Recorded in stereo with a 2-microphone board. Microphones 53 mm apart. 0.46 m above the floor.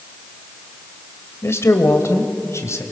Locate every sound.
1.4 s a man speaking: 55° left (ahead or behind), 1.8 m; by 2.8 s 65° left (ahead or behind), 2.5 m